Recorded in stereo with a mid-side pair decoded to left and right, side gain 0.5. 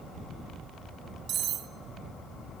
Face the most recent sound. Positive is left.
turn(degrees=-65)